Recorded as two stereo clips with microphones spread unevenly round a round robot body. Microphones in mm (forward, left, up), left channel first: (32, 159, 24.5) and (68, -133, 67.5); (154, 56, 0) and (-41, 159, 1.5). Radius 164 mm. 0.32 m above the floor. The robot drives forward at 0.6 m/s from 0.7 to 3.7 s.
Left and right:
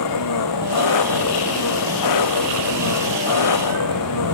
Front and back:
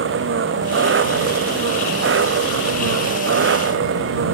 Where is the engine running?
125° left; by 4.3 s 130° left.